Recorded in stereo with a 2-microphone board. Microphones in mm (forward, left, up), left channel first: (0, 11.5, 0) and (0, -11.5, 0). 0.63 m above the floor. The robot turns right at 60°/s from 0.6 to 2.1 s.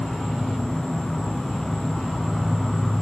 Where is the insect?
65° left, 0.9 m; by 3.0 s 155° left, 0.9 m.